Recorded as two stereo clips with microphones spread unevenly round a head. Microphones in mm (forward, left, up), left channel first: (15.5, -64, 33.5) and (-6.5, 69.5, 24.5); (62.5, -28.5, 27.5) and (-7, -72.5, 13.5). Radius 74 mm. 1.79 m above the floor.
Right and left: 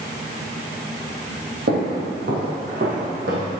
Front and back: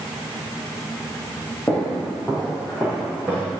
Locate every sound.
1.7 s footsteps: 100° left, 3 m; by 3.5 s 130° left, 3.5 m